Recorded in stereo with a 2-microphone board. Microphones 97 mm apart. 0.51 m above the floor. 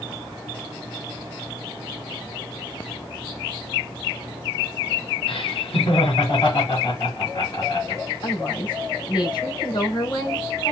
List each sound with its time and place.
5.3 s laughter: 60° left (ahead or behind), 3.5 m
8.2 s a woman speaking: 45° left (ahead or behind), 3 m